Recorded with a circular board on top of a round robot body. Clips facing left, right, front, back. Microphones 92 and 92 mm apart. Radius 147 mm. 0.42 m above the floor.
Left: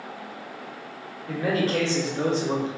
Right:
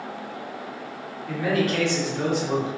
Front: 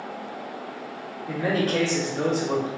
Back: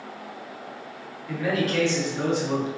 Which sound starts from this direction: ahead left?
A man speaking, at 1.3 s.